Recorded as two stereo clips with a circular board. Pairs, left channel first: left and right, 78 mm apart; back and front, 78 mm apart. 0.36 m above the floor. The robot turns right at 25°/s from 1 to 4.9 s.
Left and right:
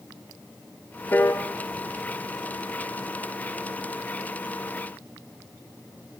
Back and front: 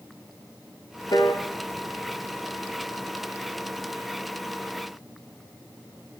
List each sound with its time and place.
1.1 s a piano: 150° left, 2.5 m; by 1.4 s 155° left, 2.5 m